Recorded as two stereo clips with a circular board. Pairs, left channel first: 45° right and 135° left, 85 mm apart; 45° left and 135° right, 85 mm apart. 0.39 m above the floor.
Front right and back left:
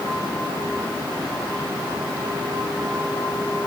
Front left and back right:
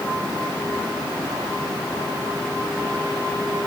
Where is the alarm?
I don't hear an alarm.